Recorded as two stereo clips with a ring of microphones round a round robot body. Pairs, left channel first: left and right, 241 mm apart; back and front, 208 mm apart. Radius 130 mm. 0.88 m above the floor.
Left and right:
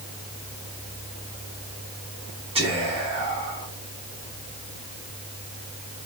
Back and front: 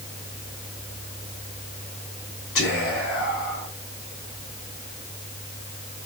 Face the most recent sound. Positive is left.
turn(degrees=-160)